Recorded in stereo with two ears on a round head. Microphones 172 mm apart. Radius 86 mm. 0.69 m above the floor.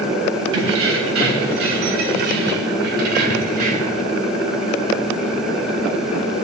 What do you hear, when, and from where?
0.5 s keys jangling: 80° right, 3 m; by 4.0 s 40° right (ahead or behind), 1.9 m